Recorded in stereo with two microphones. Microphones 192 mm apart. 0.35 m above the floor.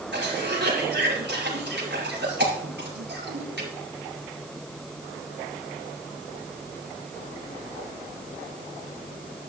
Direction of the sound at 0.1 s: 65° right (ahead or behind).